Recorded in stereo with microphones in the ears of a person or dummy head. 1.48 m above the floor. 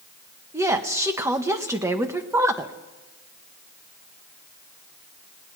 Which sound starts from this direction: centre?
A woman speaking, at 0.5 s.